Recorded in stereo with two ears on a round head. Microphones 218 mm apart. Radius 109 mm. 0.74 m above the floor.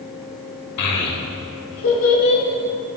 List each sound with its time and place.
0.8 s a child speaking: 80° left, 1.5 m; by 2.4 s 55° left (ahead or behind), 2.5 m